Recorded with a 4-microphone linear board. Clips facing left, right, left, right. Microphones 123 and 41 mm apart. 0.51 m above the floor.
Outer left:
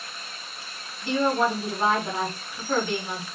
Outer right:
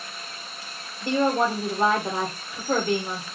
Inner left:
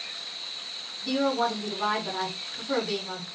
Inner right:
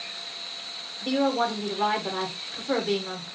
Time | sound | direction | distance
1.0 | a woman speaking | 50° right (ahead or behind) | 1.6 m